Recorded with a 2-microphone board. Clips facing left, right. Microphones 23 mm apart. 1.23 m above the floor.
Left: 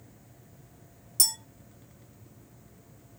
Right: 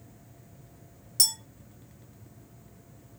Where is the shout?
I don't hear a shout.